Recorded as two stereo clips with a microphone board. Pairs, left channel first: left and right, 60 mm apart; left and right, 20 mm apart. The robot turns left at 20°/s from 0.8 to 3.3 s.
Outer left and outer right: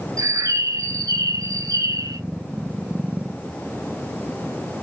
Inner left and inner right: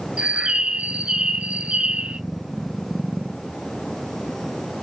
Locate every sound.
0.2 s a bird: 70° right (ahead or behind), 0.5 m; by 2.2 s 75° right (ahead or behind), 0.5 m